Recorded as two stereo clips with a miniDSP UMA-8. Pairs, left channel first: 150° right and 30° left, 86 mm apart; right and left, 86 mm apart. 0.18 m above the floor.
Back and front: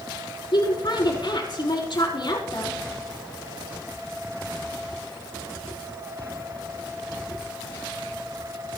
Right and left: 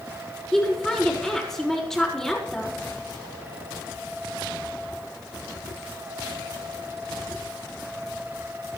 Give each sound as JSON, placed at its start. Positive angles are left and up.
{"t": 0.5, "sound": "a woman speaking", "azimuth_deg": -170, "distance_m": 5.5}